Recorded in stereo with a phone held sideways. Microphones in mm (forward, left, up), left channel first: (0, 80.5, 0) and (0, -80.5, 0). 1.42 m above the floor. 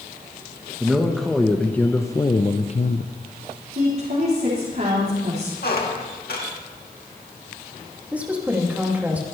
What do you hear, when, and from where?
0.8 s a man speaking: 5° right (ahead or behind), 1.4 m; by 3.1 s 60° left (ahead or behind), 0.6 m
3.8 s a woman speaking: 65° right (ahead or behind), 3.5 m
5.6 s a squeak: 70° left (ahead or behind), 1.8 m
8.1 s a woman speaking: 10° right (ahead or behind), 2.5 m